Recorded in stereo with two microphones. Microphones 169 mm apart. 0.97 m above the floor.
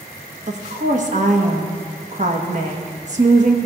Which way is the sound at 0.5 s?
45° right (ahead or behind).